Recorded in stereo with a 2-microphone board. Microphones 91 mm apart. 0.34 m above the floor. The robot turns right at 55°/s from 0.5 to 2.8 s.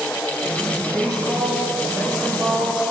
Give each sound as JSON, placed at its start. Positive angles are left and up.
{"t": 0.9, "sound": "a woman speaking", "azimuth_deg": 170, "distance_m": 3.5}